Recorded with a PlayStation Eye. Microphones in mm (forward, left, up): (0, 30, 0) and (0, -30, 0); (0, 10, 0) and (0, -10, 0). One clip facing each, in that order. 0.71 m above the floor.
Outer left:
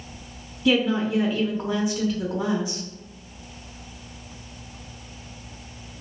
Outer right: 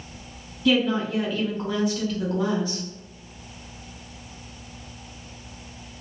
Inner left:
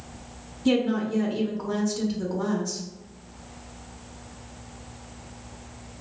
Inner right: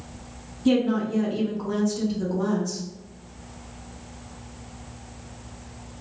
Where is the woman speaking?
5° left (ahead or behind), 0.6 m.